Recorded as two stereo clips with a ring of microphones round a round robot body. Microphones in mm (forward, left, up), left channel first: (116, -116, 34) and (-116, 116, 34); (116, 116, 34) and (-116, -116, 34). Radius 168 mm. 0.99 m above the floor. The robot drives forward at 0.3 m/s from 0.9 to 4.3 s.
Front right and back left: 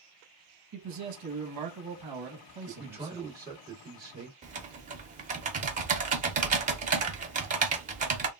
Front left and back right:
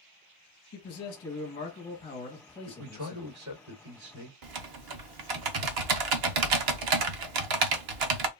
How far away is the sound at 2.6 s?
About 1.7 m.